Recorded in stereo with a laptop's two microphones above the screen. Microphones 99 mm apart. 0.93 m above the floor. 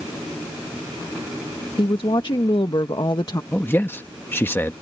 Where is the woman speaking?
60° left (ahead or behind); by 3.4 s 40° left (ahead or behind).